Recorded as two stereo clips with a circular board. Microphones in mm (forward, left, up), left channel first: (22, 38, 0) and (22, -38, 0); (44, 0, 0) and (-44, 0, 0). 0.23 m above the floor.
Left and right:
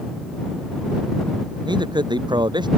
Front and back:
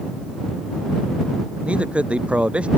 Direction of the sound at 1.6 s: 105° right.